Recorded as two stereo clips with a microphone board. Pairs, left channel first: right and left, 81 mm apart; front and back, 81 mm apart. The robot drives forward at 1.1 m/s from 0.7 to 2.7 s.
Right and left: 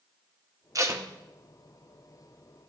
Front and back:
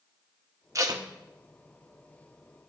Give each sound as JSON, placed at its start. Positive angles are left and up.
{"t": 0.8, "sound": "tape being pulled", "azimuth_deg": 135, "distance_m": 0.7}